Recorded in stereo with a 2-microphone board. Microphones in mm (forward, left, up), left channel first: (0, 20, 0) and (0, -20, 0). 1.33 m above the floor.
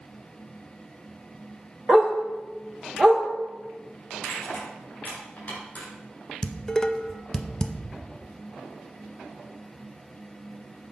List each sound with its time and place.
1.9 s a dog barking: 5° right (ahead or behind), 1.5 m
4.2 s crushing: 50° left (ahead or behind), 4 m
6.4 s dishes clattering: 15° left (ahead or behind), 0.5 m